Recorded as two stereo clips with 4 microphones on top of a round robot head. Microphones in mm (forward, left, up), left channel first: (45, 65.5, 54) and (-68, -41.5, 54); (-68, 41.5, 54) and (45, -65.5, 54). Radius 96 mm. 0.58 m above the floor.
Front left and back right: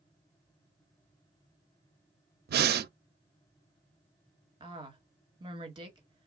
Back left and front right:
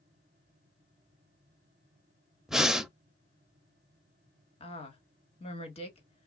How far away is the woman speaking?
About 1.7 m.